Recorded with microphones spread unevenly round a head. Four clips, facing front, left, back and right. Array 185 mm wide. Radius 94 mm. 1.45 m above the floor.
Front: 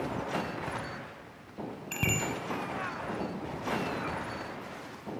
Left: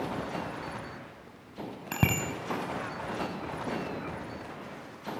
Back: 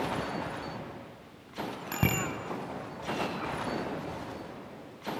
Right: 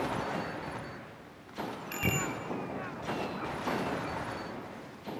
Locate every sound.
1.9 s a bicycle bell: 110° left, 7 m